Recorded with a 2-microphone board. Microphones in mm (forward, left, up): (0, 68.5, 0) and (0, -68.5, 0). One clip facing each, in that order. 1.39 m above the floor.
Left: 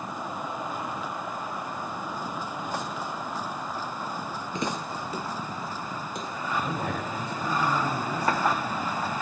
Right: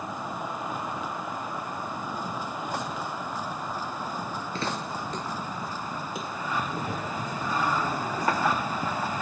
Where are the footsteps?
15° left (ahead or behind), 1.5 m; by 7.3 s 10° right (ahead or behind), 3.5 m.